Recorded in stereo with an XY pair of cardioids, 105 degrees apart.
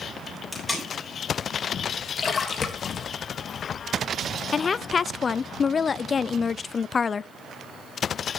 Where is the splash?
45° left, 1.7 m.